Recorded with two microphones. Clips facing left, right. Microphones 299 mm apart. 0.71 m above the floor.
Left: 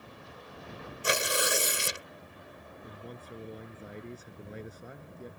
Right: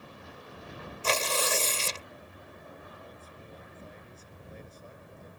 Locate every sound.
1.0 s tearing paper: 15° left (ahead or behind)
2.8 s a man speaking: 75° left (ahead or behind)